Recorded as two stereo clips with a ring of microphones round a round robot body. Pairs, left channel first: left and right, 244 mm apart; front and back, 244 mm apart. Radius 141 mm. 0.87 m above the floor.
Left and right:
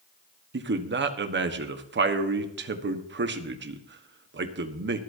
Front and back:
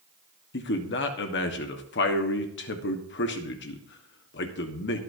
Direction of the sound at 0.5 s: 45° right.